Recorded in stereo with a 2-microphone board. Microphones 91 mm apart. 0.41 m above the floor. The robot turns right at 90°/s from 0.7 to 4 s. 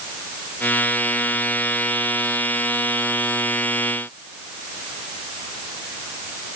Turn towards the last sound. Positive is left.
No sound to turn to.